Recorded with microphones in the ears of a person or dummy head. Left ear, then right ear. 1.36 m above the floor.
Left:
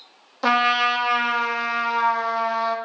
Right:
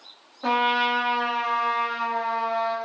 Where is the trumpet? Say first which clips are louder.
Left 3 dB; 65° left (ahead or behind), 0.6 m.